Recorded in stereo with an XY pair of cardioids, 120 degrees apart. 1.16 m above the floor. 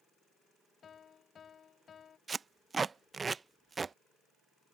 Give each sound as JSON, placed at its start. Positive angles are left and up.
{"t": 0.8, "sound": "a piano", "azimuth_deg": 40}
{"t": 2.3, "sound": "tape being pulled", "azimuth_deg": -25}